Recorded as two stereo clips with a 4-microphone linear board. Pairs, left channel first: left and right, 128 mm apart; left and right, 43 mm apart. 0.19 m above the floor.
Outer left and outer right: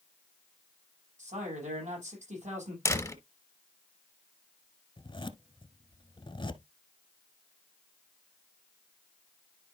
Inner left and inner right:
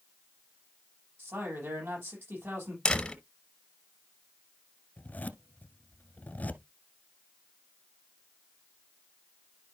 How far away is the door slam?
About 1.3 m.